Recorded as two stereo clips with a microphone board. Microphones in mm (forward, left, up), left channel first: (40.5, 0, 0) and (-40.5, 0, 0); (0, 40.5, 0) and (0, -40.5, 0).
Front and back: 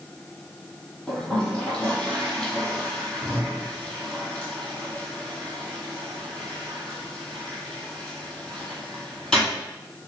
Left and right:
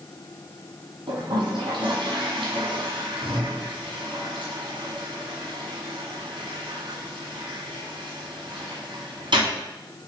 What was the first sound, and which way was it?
A toilet flushing, 85° right.